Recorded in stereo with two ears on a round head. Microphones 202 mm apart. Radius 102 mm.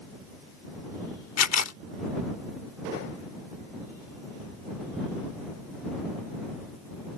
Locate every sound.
1.4 s a camera shutter: 75° left (ahead or behind)